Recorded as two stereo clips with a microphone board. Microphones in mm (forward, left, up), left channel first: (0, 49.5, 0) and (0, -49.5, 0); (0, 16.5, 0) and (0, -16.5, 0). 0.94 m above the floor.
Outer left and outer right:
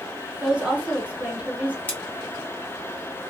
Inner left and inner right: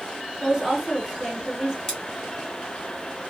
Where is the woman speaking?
15° right (ahead or behind), 1.1 m.